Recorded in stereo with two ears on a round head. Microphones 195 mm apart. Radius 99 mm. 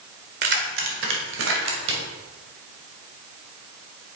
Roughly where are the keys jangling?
Right.